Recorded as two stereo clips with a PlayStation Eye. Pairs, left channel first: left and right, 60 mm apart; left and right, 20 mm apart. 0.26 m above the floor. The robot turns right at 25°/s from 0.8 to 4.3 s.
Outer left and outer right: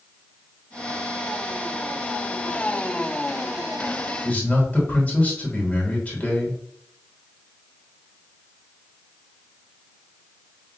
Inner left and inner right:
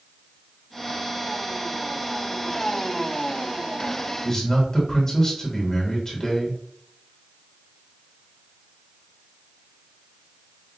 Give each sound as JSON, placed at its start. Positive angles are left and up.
{"t": 4.2, "sound": "a man speaking", "side_deg": 20, "distance_m": 1.2}